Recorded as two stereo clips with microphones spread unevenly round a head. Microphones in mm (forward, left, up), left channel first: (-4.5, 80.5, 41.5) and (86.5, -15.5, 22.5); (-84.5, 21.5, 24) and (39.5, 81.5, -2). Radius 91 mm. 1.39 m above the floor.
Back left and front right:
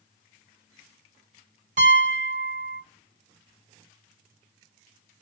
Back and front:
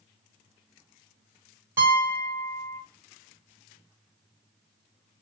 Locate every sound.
1.8 s a piano: 55° right, 1.2 m